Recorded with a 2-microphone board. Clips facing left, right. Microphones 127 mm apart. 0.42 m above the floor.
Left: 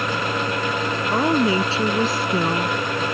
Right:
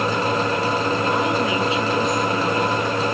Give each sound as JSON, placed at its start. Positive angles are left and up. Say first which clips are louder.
{"t": 1.1, "sound": "a woman speaking", "louder": "left 2 dB", "side_deg": 35}